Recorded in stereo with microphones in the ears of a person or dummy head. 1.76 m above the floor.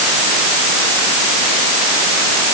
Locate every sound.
Only background noise.